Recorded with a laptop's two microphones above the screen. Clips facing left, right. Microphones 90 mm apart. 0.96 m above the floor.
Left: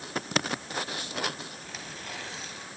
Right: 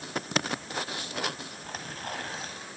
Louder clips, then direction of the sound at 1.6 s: Right 3 dB; 50° right (ahead or behind).